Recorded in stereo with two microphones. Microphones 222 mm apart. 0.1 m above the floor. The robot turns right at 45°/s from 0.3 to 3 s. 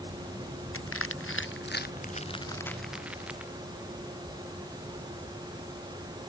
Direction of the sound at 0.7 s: 80° left.